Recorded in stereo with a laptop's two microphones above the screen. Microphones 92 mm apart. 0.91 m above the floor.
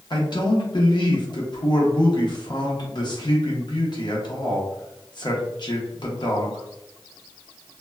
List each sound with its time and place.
0.1 s a man speaking: 55° left (ahead or behind), 0.7 m